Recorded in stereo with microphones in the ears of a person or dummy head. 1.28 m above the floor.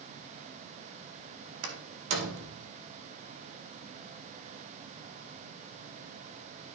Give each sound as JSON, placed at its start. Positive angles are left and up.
{"t": 1.6, "sound": "a door slam", "side_deg": -80, "distance_m": 1.9}